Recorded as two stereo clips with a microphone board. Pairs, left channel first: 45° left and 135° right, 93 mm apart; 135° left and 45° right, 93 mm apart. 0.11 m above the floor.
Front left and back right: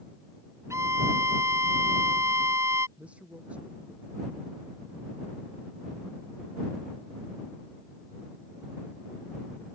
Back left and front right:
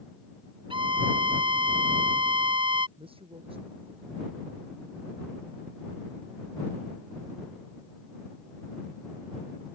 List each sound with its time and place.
0.7 s a violin: 75° right
3.0 s a man speaking: 60° right